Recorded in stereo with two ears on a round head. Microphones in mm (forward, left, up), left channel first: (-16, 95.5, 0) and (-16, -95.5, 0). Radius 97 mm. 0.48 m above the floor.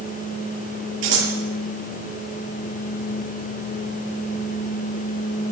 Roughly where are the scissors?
Right.